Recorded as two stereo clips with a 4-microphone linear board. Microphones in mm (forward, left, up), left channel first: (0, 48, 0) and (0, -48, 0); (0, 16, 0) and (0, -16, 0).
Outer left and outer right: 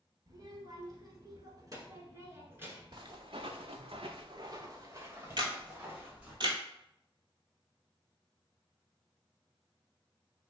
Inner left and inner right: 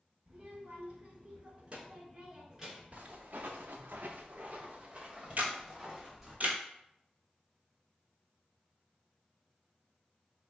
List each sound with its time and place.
0.3 s a child speaking: 45° right (ahead or behind), 1.3 m; by 3.0 s 20° right (ahead or behind), 1.2 m
2.9 s footsteps: 50° right (ahead or behind), 0.9 m; by 6.4 s 10° right (ahead or behind), 2.0 m
5.4 s a camera shutter: 55° right (ahead or behind), 0.9 m